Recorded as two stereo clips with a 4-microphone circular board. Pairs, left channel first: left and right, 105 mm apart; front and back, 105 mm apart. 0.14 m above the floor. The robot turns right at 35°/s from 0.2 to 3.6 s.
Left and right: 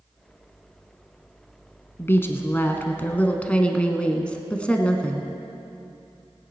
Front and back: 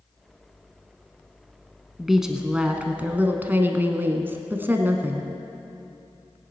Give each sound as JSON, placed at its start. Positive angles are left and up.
{"t": 2.0, "sound": "a woman speaking", "azimuth_deg": 95, "distance_m": 1.0}